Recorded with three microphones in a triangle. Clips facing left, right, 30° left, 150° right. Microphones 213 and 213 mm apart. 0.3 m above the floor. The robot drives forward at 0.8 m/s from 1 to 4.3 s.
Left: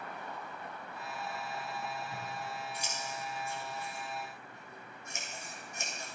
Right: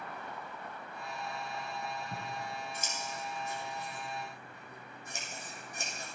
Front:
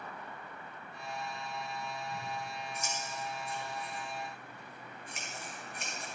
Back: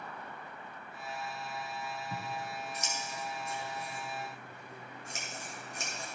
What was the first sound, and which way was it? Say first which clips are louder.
Scissors: right 1 dB, back 1 dB; 125° right.